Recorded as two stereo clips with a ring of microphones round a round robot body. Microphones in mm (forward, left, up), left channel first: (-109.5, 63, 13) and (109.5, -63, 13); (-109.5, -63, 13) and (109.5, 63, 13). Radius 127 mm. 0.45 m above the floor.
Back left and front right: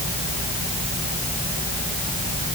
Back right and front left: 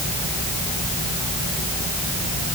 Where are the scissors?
No scissors in this recording.